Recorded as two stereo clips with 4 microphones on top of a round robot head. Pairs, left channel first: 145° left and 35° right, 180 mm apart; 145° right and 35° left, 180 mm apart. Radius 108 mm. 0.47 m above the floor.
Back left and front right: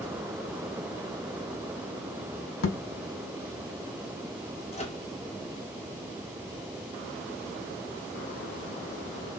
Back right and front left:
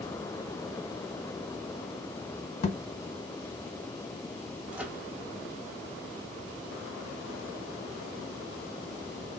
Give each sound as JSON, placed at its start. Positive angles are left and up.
{"t": 2.6, "sound": "a thud", "azimuth_deg": 160, "distance_m": 0.6}
{"t": 4.7, "sound": "a microwave", "azimuth_deg": 115, "distance_m": 1.2}